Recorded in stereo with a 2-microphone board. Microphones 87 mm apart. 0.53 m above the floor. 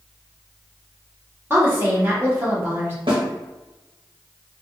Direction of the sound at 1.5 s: 25° right (ahead or behind).